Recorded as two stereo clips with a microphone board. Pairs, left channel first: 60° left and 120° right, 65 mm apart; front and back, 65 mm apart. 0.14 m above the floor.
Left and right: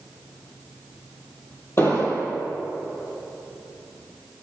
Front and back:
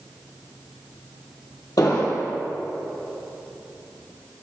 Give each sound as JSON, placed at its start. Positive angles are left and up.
{"t": 1.8, "sound": "an explosion", "azimuth_deg": 15, "distance_m": 2.0}